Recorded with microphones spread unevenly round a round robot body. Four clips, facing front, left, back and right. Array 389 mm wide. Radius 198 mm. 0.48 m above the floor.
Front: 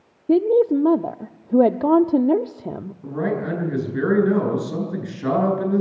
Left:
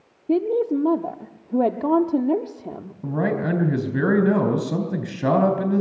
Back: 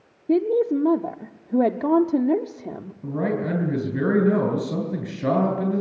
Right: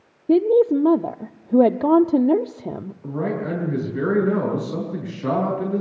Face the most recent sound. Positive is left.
turn(degrees=110)